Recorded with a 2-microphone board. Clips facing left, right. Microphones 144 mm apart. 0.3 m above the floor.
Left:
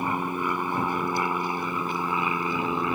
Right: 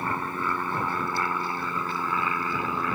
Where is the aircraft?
15° left (ahead or behind); by 3.0 s 20° left (ahead or behind).